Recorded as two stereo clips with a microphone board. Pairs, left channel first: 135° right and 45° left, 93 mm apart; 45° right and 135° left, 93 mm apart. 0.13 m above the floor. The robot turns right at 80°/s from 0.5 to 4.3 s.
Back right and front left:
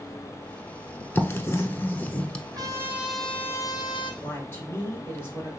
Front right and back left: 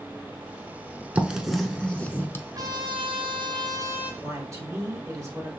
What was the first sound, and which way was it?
Writing, 165° right.